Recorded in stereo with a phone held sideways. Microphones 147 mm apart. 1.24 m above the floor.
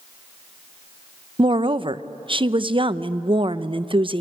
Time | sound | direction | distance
1.4 | a woman speaking | 35° right (ahead or behind) | 0.7 m